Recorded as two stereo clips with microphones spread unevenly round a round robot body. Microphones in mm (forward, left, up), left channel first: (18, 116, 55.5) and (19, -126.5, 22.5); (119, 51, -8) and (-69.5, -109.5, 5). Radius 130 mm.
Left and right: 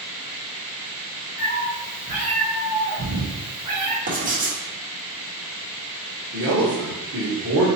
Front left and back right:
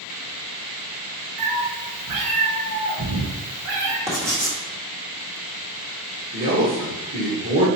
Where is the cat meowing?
170° right, 1.7 m; by 4.0 s 110° right, 1.8 m.